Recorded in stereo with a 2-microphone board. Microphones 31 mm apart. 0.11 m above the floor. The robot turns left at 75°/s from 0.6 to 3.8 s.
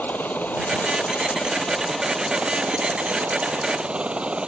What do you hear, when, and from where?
0.0 s a helicopter: 100° left; by 4.5 s 140° right